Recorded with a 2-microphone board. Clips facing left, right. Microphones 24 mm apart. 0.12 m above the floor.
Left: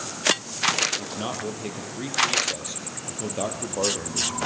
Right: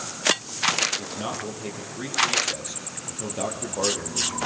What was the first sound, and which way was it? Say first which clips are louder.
A man speaking: left 1 dB; 10° left (ahead or behind).